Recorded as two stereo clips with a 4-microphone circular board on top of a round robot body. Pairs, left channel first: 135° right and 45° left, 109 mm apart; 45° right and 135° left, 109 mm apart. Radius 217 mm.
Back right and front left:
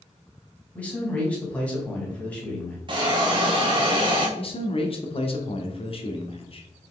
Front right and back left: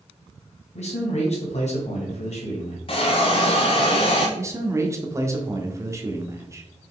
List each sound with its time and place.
0.8 s a man speaking: 55° right, 3 m
2.9 s a hiss: 5° right, 1.0 m
4.4 s a man speaking: 165° right, 1.6 m